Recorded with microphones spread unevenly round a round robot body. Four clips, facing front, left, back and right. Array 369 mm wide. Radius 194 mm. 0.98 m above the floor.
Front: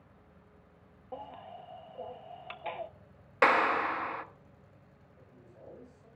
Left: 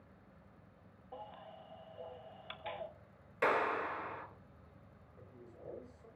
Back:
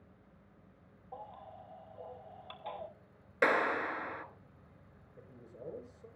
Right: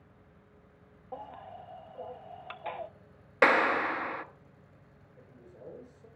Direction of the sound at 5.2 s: 160° right.